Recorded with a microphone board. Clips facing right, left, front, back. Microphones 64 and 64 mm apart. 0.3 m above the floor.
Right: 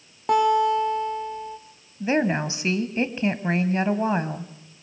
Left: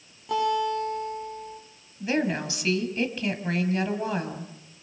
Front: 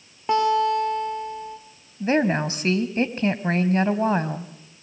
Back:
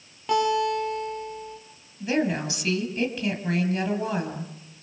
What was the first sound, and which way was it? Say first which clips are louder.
A guitar: right 6 dB, front 3 dB; 65° right.